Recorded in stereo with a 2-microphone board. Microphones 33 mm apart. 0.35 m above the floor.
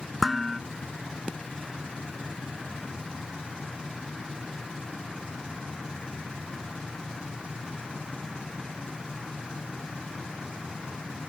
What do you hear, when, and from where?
0.2 s dishes clattering: 5° right (ahead or behind)